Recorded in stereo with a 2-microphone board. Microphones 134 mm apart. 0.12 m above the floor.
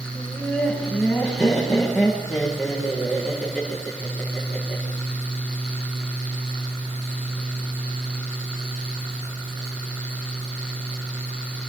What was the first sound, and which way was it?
Laughter, 5° left (ahead or behind).